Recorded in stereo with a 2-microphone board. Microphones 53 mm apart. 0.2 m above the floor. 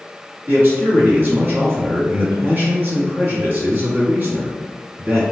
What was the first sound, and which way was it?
A man speaking, 40° right (ahead or behind).